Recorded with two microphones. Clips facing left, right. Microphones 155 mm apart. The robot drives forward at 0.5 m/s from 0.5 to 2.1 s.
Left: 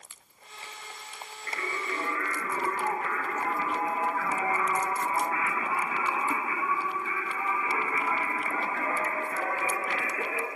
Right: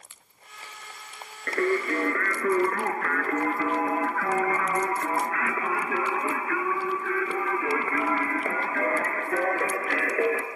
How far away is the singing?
About 1.6 m.